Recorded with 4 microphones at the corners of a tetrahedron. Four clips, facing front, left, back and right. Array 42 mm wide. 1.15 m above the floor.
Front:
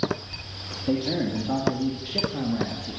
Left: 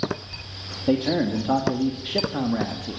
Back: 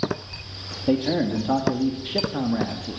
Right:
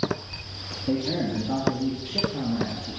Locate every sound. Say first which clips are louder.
0.9 s a man speaking: left 4 dB, back 4 dB; 125° left, 2.5 m